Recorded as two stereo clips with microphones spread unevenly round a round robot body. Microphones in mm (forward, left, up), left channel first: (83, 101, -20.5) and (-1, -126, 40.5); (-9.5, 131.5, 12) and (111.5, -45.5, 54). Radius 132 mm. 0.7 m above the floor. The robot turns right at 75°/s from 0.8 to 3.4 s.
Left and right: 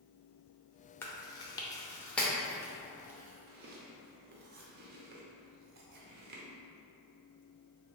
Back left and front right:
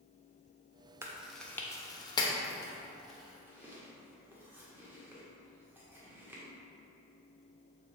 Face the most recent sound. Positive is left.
turn(degrees=-150)